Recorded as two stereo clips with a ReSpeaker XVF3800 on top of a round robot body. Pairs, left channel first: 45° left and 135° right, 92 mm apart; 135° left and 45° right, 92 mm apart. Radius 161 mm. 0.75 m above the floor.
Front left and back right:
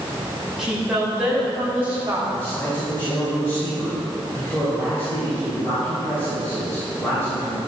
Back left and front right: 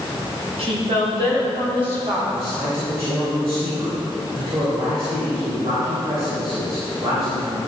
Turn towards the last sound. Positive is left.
turn(degrees=-20)